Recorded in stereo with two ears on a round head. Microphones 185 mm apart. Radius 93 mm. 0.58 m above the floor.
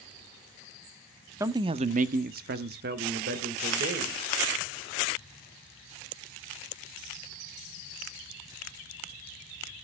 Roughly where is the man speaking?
Centre.